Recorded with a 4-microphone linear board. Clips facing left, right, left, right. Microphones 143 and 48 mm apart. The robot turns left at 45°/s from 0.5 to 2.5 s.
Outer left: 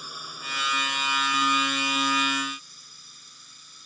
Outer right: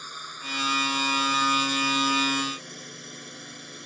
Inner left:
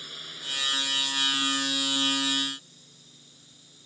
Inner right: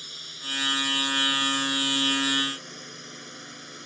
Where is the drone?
10° left; by 3.9 s 80° right.